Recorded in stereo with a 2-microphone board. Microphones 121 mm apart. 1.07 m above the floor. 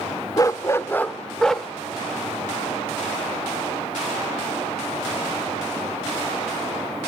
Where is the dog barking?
30° left (ahead or behind), 0.7 m; by 1.7 s centre (ahead or behind), 0.9 m.